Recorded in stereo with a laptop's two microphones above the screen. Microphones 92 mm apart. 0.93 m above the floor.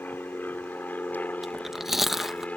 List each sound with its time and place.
0.0 s an aircraft: 20° left (ahead or behind); by 2.6 s 15° left (ahead or behind)
1.4 s chewing: 5° right (ahead or behind)